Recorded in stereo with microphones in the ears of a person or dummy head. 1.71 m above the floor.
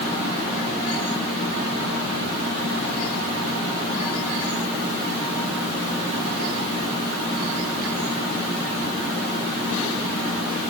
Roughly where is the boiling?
I don't hear boiling.